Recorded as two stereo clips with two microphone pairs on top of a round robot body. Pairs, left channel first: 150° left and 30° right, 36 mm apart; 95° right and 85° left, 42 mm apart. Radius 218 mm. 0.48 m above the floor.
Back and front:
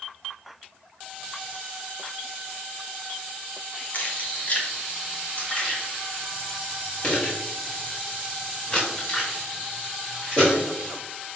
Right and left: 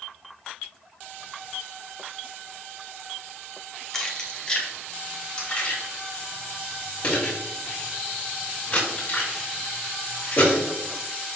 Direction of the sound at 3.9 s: 175° right.